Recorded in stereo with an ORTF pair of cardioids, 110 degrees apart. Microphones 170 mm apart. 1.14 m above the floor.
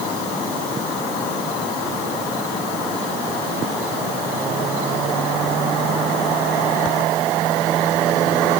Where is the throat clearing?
No throat clearing in this recording.